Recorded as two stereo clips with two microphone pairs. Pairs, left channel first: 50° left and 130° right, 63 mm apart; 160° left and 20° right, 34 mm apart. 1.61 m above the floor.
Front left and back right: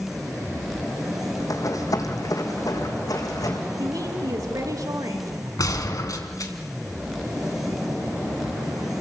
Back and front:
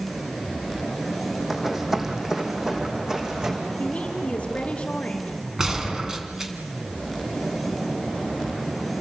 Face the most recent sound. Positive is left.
turn(degrees=50)